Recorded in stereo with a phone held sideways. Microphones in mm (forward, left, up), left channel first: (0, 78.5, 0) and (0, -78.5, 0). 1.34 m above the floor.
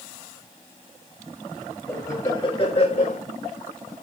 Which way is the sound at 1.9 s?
20° left (ahead or behind).